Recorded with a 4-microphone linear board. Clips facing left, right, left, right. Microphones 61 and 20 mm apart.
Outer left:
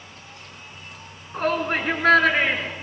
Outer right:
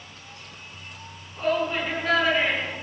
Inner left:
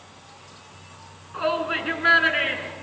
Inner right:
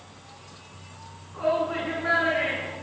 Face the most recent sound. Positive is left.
turn(degrees=75)  # may be behind; listen again after turning